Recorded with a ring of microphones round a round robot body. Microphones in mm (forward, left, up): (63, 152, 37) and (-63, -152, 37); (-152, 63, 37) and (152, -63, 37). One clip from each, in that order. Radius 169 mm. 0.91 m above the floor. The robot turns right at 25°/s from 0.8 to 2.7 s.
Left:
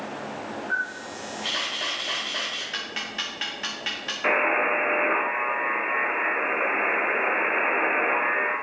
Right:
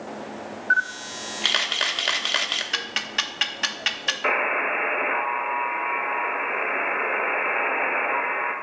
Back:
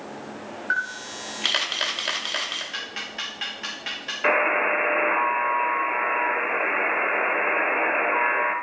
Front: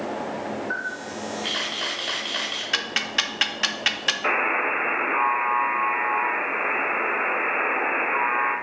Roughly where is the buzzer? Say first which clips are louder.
Left 2 dB, back 4 dB; behind.